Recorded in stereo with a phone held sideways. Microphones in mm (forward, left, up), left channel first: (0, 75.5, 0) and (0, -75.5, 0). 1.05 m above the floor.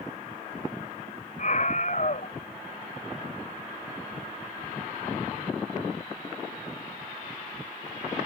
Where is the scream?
55° left (ahead or behind).